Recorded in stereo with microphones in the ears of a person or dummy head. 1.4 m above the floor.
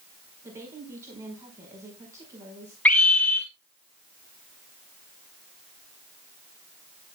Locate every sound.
0.4 s a woman speaking: 15° right (ahead or behind), 5.5 m
2.9 s a scream: 5° left (ahead or behind), 3 m